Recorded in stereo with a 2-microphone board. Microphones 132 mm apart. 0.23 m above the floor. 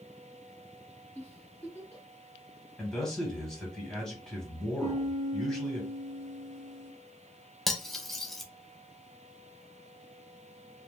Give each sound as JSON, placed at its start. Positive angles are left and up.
{"t": 1.1, "sound": "a giggle", "side_deg": 15, "distance_m": 1.5}
{"t": 2.8, "sound": "a man speaking", "side_deg": 5, "distance_m": 1.5}
{"t": 4.8, "sound": "a piano", "side_deg": -75, "distance_m": 0.8}
{"t": 7.7, "sound": "cutlery clinking", "side_deg": 0, "distance_m": 0.5}